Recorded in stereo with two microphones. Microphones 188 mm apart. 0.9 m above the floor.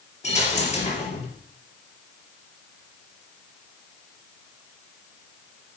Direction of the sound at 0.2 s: 35° left (ahead or behind).